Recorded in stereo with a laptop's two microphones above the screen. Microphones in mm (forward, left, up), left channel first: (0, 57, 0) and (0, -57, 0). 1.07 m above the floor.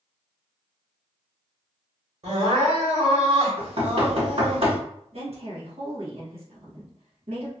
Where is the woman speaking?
65° right (ahead or behind), 1.3 m.